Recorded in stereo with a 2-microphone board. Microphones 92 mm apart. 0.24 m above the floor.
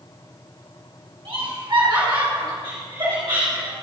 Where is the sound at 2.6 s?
65° right (ahead or behind), 3 m.